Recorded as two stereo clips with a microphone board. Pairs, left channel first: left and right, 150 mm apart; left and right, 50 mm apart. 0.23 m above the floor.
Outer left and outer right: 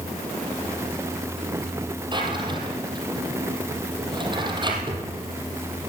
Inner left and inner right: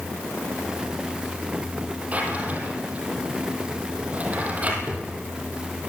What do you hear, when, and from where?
2.1 s a drawer: 30° right (ahead or behind), 4 m